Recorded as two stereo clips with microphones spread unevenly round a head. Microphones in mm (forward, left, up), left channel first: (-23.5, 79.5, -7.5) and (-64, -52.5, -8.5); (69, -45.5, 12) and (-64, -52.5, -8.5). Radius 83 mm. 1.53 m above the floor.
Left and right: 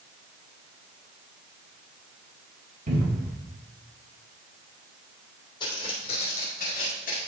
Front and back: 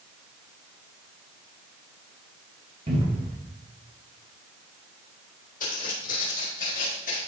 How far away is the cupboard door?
About 3 m.